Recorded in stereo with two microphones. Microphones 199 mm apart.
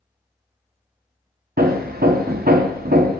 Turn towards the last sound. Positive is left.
turn(degrees=-50)  # may be behind; listen again after turning